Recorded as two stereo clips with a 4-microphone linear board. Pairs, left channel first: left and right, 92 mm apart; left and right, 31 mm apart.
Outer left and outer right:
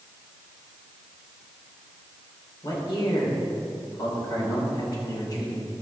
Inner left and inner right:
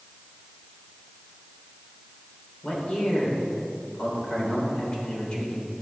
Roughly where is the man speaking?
Left.